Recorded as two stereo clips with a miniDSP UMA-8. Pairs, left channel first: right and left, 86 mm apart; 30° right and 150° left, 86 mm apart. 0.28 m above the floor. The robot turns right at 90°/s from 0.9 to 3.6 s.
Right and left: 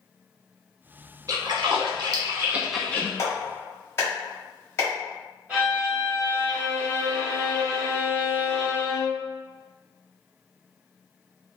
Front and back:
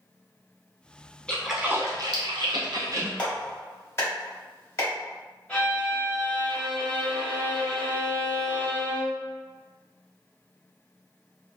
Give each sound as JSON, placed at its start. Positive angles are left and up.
{"t": 1.3, "sound": "a splash", "azimuth_deg": 45, "distance_m": 0.7}
{"t": 3.2, "sound": "a clap", "azimuth_deg": -95, "distance_m": 1.3}
{"t": 5.5, "sound": "a violin", "azimuth_deg": 30, "distance_m": 1.5}